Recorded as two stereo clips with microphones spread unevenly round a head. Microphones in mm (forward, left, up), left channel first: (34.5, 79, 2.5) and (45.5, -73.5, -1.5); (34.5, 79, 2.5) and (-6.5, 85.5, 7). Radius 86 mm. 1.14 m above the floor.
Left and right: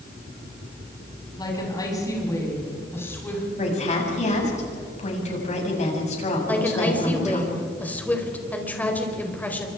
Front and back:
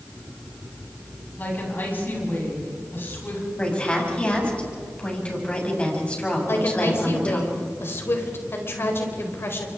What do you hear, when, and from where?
1.4 s a woman speaking: 30° left, 9.5 m; by 3.4 s 15° left, 9 m
3.6 s a woman speaking: 50° left, 7.5 m
6.5 s a woman speaking: 15° left, 4.5 m